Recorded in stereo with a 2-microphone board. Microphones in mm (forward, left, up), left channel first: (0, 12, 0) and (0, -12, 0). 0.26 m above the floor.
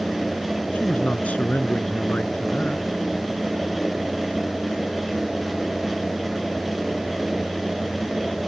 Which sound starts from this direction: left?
A man speaking, at 0.7 s.